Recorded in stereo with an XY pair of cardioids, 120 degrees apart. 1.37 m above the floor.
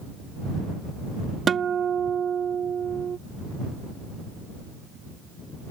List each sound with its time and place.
1.5 s a guitar: 40° right